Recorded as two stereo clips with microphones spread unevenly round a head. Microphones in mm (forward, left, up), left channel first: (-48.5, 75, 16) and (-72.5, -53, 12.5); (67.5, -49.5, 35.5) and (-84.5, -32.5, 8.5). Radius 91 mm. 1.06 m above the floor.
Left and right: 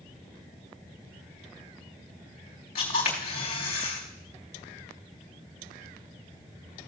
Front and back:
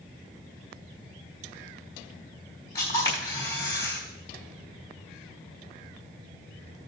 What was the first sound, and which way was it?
A camera shutter, 65° left.